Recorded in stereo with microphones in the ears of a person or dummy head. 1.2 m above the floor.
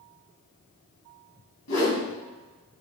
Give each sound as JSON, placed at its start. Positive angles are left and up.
{"t": 1.7, "sound": "a whoosh", "side_deg": 80, "distance_m": 1.2}